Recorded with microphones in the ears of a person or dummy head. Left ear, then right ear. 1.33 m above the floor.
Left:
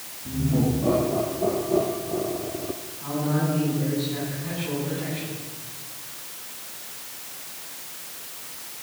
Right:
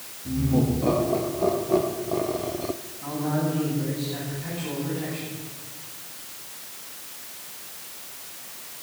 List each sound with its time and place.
0.2 s laughter: 70° right (ahead or behind), 3.5 m; by 2.8 s 30° right (ahead or behind), 0.5 m
3.0 s a man speaking: 30° right (ahead or behind), 9.5 m